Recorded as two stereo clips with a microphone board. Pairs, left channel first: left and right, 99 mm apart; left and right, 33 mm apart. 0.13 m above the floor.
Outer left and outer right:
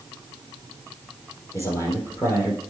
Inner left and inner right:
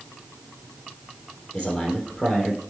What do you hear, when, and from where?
1.5 s a man speaking: 30° left (ahead or behind), 3.5 m